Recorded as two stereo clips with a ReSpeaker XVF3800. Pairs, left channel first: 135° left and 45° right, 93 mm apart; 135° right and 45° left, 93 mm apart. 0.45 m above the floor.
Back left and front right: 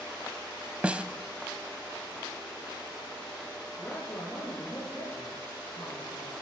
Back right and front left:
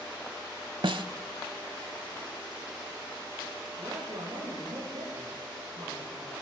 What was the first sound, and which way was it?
A snare drum, 30° left.